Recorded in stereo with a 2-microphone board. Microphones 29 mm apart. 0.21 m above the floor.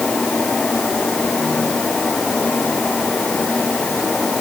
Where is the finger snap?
I don't hear a finger snap.